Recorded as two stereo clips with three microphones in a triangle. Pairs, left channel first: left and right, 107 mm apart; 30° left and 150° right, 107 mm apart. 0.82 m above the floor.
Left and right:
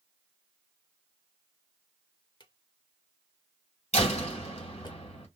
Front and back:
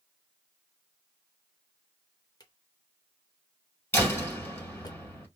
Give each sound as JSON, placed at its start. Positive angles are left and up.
{"t": 2.4, "sound": "a drawer", "azimuth_deg": 65, "distance_m": 0.6}
{"t": 3.9, "sound": "a door slam", "azimuth_deg": 100, "distance_m": 2.0}